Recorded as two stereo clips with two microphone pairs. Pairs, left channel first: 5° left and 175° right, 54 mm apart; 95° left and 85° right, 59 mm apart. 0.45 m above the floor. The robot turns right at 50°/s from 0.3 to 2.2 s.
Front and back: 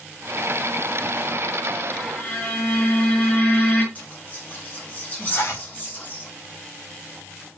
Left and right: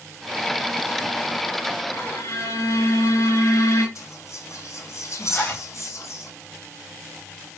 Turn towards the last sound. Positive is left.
turn(degrees=30)